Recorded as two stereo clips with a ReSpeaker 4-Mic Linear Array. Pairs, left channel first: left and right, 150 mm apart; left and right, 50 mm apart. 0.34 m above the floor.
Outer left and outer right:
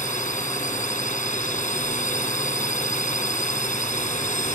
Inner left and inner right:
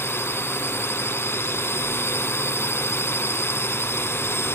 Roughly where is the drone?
Left.